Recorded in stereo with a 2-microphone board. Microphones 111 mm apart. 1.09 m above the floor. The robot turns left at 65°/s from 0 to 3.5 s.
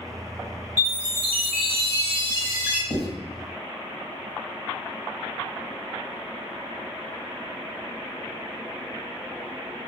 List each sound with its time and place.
0.8 s a chime: 35° right, 0.8 m; by 2.8 s 165° right, 0.8 m
2.9 s writing: 65° left (ahead or behind), 1.7 m; by 3.0 s 60° left (ahead or behind), 1.7 m